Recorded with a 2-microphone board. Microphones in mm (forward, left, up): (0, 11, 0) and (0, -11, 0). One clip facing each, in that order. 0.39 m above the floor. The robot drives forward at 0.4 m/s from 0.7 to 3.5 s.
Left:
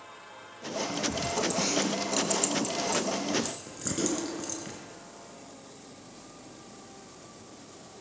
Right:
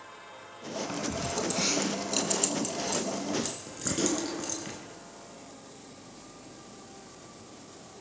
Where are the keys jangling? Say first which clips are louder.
Left 2 dB; 20° right (ahead or behind), 2.5 m; by 4.8 s 15° right (ahead or behind), 3.5 m.